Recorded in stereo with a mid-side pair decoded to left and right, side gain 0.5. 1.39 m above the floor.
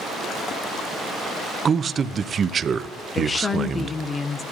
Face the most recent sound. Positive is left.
turn(degrees=30)